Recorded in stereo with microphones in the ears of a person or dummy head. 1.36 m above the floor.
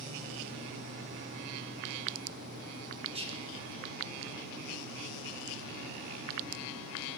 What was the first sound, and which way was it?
Whispering, 25° right (ahead or behind).